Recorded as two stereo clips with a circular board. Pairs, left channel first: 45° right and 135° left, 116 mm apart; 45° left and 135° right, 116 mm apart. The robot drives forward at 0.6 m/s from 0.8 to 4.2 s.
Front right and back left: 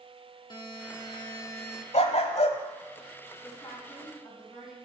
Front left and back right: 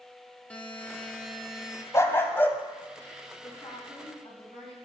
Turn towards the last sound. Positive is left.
turn(degrees=10)